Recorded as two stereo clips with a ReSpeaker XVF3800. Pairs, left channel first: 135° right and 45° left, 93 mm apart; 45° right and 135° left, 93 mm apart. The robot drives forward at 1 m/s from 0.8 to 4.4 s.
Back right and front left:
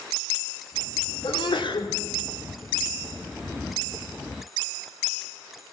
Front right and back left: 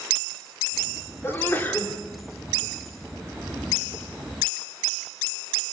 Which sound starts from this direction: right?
A sneeze, at 1.2 s.